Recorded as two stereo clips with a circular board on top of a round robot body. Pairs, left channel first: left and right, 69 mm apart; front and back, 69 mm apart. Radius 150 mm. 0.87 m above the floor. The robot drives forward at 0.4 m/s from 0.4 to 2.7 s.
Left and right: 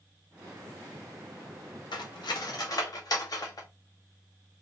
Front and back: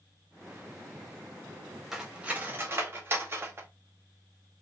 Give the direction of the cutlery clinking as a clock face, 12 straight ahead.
9 o'clock.